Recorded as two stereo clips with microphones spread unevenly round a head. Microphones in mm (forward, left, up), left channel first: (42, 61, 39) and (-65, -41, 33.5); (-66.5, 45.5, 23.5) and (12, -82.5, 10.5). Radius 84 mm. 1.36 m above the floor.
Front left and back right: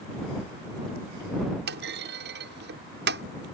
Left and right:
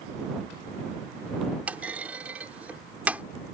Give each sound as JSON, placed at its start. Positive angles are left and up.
{"t": 1.7, "sound": "a clunk", "azimuth_deg": -140}